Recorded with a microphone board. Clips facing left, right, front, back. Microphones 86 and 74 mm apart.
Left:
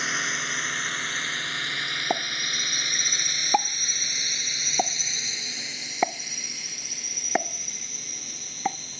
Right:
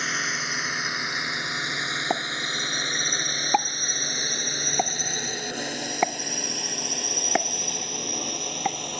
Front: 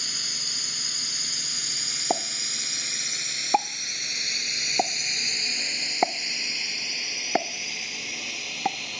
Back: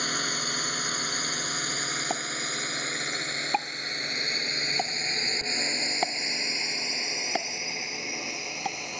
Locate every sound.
0.0 s a drone: straight behind; by 9.0 s 110° right
2.1 s a pop: straight ahead